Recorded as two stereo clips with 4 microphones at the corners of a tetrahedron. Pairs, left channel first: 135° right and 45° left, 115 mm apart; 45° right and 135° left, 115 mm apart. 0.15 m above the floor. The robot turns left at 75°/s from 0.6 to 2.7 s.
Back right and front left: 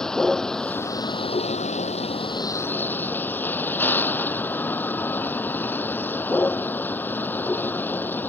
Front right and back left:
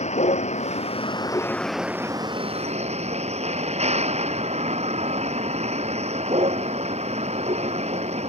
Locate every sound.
0.0 s a vehicle: 50° right; by 8.3 s 150° left